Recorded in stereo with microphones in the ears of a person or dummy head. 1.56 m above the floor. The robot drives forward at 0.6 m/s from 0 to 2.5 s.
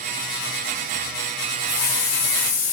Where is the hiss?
70° left (ahead or behind), 5 m; by 2.7 s 65° left (ahead or behind), 5 m.